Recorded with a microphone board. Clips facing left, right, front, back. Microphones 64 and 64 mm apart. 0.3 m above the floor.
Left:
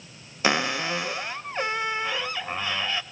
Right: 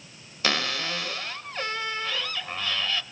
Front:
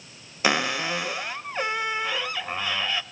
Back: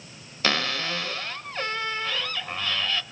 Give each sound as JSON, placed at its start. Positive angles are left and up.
{"t": 0.4, "sound": "a cupboard door", "azimuth_deg": 50, "distance_m": 0.9}